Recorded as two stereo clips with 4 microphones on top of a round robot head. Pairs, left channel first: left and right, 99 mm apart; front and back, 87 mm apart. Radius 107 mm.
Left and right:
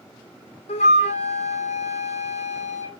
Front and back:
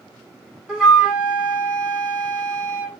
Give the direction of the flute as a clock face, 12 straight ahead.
9 o'clock.